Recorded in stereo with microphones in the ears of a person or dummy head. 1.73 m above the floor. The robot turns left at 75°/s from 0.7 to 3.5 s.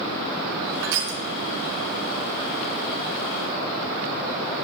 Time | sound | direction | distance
0.8 | crushing | 60° right (ahead or behind) | 1.8 m